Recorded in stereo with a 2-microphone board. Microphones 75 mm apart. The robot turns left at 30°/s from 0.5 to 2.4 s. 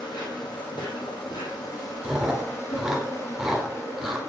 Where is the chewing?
10° right (ahead or behind), 1.4 m; by 4.2 s 5° right (ahead or behind), 1.4 m.